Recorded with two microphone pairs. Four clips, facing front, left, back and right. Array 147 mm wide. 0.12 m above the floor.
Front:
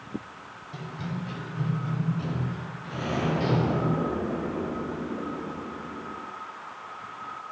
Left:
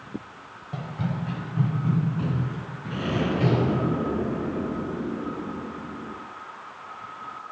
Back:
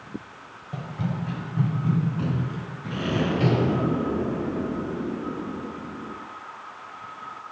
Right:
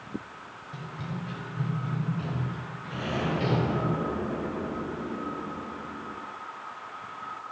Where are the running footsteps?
125° left, 1.6 m; by 3.9 s 150° left, 5 m.